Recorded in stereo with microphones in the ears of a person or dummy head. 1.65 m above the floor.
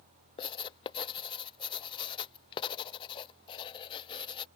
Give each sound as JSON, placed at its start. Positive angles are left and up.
{"t": 0.4, "sound": "writing", "side_deg": 30}